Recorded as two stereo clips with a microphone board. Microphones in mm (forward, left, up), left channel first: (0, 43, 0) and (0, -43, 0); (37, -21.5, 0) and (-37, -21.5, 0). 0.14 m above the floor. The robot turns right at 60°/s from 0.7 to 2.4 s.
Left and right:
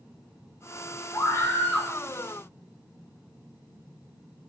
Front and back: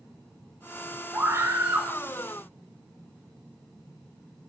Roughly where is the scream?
Behind left.